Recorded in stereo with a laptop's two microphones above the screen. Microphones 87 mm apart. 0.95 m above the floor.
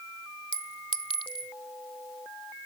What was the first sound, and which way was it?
A clink, 75° left (ahead or behind).